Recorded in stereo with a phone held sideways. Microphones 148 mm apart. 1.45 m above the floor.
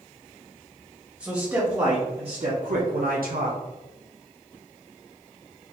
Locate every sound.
1.2 s a man speaking: 10° right (ahead or behind), 1.3 m; by 3.6 s 70° right (ahead or behind), 1.0 m